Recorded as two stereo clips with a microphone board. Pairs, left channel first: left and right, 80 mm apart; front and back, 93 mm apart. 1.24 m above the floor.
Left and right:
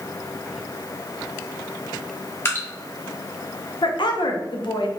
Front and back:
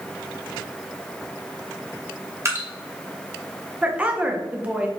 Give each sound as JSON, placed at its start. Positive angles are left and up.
{"t": 2.5, "sound": "dripping", "azimuth_deg": 135, "distance_m": 0.9}
{"t": 3.8, "sound": "a woman speaking", "azimuth_deg": 105, "distance_m": 0.7}